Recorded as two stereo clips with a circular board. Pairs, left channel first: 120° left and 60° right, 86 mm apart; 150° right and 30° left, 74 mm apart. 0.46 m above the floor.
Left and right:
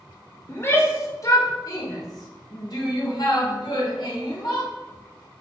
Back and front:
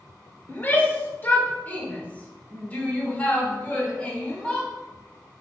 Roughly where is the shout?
Behind.